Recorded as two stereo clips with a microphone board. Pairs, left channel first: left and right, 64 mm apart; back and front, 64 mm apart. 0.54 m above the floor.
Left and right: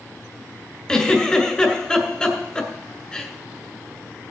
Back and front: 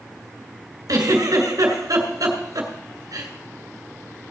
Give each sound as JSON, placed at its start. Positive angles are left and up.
{"t": 0.9, "sound": "a giggle", "azimuth_deg": 15, "distance_m": 2.0}